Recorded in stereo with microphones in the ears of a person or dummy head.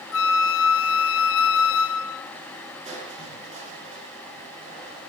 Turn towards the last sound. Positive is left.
turn(degrees=-35)  # may be behind; listen again after turning